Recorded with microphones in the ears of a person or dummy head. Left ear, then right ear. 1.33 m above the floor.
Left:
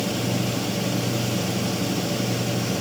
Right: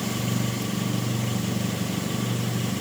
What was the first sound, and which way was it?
Only background noise.